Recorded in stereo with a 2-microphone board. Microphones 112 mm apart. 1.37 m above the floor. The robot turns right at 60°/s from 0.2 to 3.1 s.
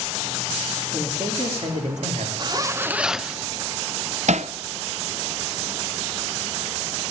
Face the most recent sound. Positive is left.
turn(degrees=-70)  # may be behind; listen again after turning